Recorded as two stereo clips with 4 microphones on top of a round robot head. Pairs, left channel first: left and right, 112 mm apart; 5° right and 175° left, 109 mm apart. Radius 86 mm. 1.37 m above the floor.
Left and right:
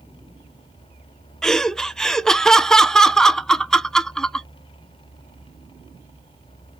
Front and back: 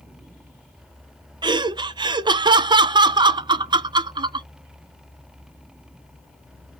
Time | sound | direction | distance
1.4 | laughter | 175° left | 0.5 m